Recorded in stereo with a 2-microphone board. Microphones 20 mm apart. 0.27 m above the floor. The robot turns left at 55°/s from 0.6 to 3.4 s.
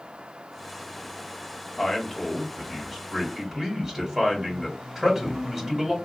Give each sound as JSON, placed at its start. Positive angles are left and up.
{"t": 1.8, "sound": "a man speaking", "azimuth_deg": 100, "distance_m": 1.7}